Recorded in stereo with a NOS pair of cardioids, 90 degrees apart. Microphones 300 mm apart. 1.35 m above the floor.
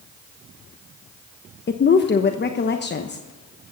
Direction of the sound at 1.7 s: 35° left.